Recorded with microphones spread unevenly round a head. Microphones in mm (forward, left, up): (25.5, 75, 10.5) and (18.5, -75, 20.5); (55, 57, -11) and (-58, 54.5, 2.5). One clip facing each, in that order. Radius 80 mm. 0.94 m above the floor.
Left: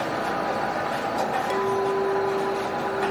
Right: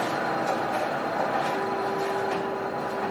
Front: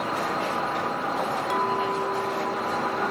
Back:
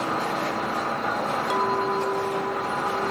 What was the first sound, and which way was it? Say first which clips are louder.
A clink: left 4 dB, back 2 dB; 95° left.